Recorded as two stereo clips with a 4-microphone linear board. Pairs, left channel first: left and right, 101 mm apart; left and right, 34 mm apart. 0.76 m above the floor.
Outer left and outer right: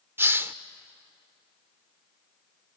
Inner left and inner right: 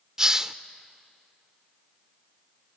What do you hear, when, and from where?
0.2 s a hiss: 20° right (ahead or behind), 0.6 m